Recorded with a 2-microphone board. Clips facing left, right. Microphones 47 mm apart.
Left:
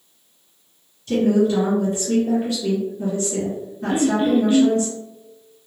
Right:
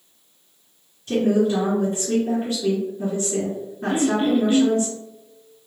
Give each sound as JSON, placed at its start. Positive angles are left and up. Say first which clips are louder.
{"t": 1.1, "sound": "a woman speaking", "louder": "left 2 dB", "side_deg": -30, "distance_m": 1.7}
{"t": 3.9, "sound": "throat clearing", "louder": "left 2 dB", "side_deg": -15, "distance_m": 1.4}